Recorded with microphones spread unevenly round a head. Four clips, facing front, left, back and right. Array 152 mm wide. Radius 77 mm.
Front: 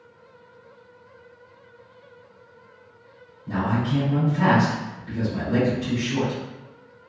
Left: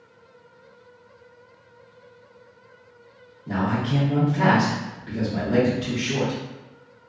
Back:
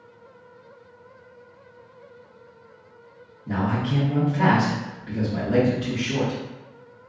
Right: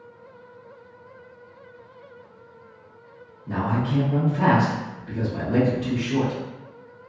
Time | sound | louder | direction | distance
3.5 | a man speaking | left 1 dB, front 1 dB | 135° left | 1.7 m